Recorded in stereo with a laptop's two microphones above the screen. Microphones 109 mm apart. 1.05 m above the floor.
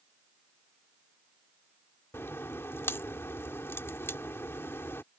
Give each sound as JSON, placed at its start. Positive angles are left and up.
{"t": 2.1, "sound": "a crack", "side_deg": 25}